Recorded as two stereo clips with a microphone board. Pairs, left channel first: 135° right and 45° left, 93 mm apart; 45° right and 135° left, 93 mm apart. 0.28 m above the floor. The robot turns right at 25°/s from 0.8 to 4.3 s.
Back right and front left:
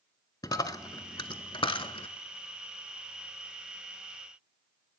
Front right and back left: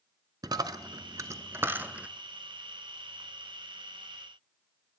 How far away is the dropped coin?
About 0.5 m.